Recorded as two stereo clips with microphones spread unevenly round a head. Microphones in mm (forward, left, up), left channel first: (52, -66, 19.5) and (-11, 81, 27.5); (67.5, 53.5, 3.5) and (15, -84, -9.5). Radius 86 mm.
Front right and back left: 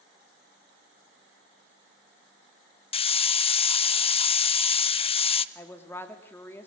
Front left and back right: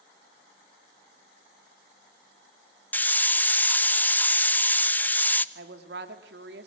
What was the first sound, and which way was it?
A hiss, 10° right.